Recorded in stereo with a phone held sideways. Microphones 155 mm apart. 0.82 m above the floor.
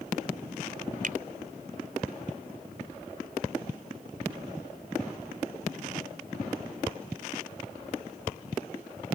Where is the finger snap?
60° right (ahead or behind).